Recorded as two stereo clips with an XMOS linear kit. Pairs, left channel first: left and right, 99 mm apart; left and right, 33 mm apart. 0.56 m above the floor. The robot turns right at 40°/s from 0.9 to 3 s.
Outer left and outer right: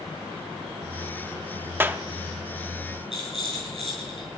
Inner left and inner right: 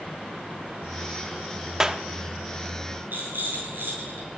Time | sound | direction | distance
1.8 | a clap | 20° right (ahead or behind) | 0.7 m
3.1 | a rattle | 70° right (ahead or behind) | 9.5 m